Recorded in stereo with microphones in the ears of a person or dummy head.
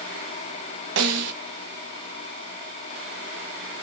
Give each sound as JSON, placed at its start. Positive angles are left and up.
{"t": 1.0, "sound": "a snare drum", "side_deg": -60, "distance_m": 0.9}